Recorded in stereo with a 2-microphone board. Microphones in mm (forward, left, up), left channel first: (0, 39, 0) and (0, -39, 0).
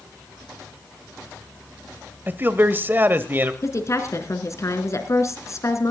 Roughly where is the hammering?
I don't hear hammering.